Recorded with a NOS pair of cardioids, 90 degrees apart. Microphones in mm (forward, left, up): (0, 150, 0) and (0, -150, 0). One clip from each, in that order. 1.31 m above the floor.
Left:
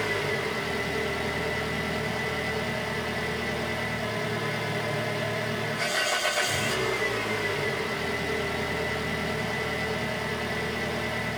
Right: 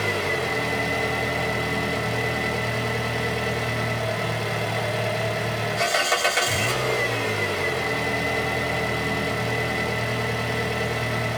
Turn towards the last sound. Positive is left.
turn(degrees=-65)